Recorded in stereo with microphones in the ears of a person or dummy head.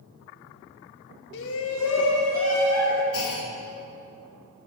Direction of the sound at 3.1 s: 75° left (ahead or behind).